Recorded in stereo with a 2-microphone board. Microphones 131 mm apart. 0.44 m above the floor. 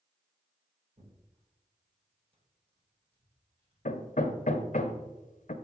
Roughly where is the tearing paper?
Right.